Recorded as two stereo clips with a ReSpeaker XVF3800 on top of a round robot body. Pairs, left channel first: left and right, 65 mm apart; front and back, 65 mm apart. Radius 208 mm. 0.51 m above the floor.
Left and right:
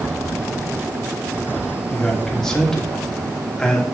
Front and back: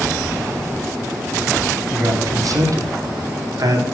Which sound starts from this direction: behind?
A man speaking, at 1.9 s.